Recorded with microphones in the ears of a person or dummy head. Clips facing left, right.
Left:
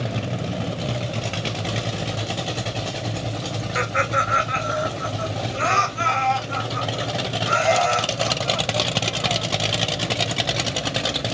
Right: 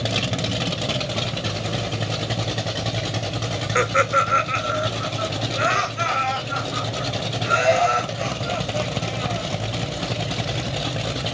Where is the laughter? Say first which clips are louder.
Right 4 dB; 55° right (ahead or behind), 0.5 m; by 9.4 s 10° right (ahead or behind), 3.5 m.